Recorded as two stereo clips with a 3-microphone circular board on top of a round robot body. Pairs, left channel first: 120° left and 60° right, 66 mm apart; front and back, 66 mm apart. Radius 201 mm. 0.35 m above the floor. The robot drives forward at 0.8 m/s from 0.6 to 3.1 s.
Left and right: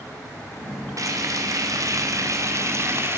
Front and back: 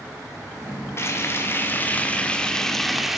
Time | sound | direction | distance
1.0 | frying | 40° right | 2.5 m